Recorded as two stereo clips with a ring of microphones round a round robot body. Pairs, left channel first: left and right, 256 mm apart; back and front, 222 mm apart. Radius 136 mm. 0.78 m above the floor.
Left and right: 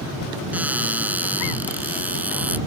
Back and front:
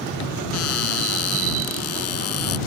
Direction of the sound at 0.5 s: 175° right.